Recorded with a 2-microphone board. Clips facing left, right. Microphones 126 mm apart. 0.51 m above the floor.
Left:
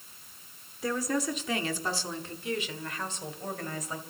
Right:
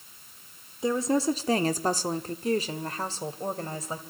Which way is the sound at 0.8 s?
20° right (ahead or behind).